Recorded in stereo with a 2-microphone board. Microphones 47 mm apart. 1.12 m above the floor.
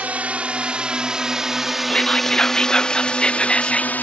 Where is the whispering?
15° left (ahead or behind).